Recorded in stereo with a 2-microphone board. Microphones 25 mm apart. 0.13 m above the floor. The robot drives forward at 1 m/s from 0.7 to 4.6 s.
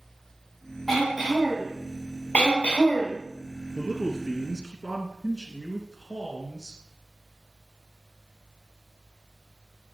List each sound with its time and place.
0.9 s throat clearing: 5° left (ahead or behind), 4.5 m
2.3 s throat clearing: 60° left (ahead or behind), 1.9 m; by 3.2 s 55° left (ahead or behind), 2 m
3.8 s a man speaking: centre (ahead or behind), 3 m